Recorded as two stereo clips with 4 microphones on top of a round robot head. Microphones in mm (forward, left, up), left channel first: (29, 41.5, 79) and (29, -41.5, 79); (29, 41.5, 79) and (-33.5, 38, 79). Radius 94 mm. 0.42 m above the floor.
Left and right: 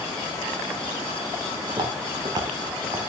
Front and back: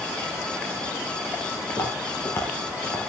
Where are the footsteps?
55° right, 7 m.